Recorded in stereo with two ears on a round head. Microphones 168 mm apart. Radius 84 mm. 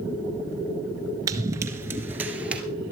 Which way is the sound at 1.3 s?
20° right (ahead or behind).